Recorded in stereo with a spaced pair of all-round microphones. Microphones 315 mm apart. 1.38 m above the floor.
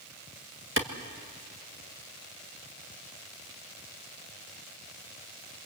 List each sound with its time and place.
0.8 s a clap: 40° right (ahead or behind), 1.7 m